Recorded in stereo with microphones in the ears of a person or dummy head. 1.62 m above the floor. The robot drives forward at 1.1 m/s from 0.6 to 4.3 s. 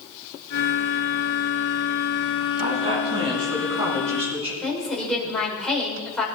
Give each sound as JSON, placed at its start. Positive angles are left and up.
{"t": 2.6, "sound": "a woman speaking", "side_deg": -35, "distance_m": 7.5}
{"t": 4.6, "sound": "a woman speaking", "side_deg": 5, "distance_m": 5.5}